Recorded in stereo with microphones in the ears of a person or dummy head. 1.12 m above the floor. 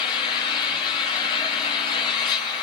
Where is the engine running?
25° left (ahead or behind), 8 m.